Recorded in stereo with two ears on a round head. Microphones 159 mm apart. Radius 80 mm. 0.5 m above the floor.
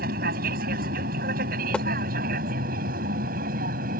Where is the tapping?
5° left (ahead or behind).